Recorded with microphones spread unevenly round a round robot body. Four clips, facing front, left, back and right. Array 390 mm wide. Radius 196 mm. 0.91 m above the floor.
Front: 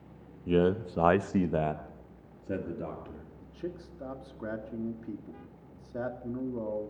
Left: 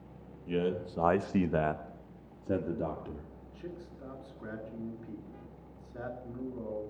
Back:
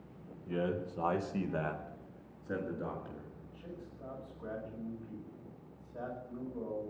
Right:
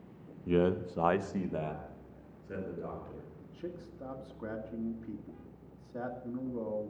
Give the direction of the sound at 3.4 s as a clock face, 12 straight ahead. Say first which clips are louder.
Right 1 dB, front 8 dB; 1 o'clock.